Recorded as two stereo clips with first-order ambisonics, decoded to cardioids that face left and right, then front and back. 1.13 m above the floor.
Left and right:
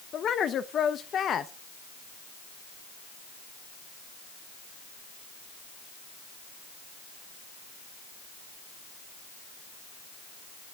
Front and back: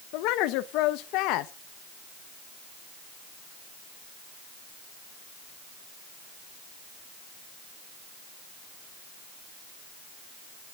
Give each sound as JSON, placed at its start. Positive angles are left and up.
{"t": 0.1, "sound": "a woman speaking", "azimuth_deg": 30, "distance_m": 0.8}